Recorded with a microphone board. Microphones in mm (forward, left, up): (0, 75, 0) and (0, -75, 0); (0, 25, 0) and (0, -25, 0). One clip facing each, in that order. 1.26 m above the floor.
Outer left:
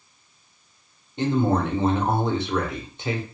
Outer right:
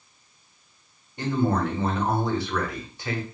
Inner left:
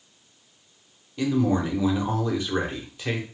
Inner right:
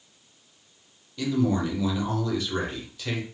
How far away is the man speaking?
About 0.9 m.